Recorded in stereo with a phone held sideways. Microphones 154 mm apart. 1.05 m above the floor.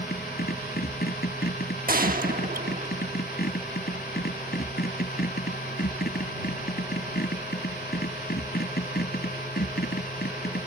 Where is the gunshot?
70° right (ahead or behind).